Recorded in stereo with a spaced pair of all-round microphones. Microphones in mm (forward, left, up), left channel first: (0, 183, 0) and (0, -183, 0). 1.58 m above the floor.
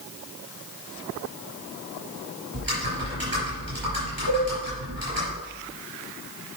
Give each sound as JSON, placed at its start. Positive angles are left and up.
{"t": 2.5, "sound": "typing on a keyboard", "side_deg": -70, "distance_m": 5.0}
{"t": 4.3, "sound": "a cowbell", "side_deg": -65, "distance_m": 3.5}